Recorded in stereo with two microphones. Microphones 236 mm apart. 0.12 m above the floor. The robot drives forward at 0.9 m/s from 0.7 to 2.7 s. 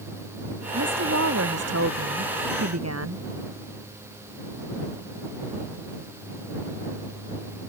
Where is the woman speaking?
75° right (ahead or behind); by 3.3 s 80° right.